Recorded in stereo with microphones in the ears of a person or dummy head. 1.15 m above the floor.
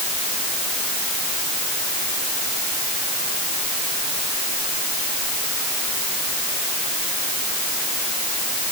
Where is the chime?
I don't hear a chime.